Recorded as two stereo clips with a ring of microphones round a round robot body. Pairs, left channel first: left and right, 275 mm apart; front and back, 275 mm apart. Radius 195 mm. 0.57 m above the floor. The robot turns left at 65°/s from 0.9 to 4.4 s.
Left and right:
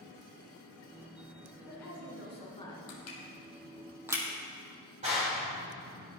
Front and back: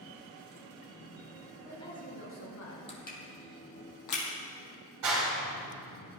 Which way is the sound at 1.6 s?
85° left.